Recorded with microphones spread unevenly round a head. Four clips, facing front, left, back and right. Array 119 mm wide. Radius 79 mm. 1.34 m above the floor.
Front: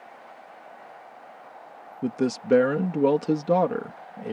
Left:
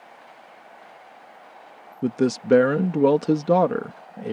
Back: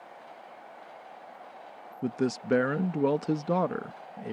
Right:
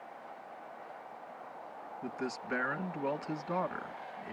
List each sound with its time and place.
2.0 s a man speaking: 75° left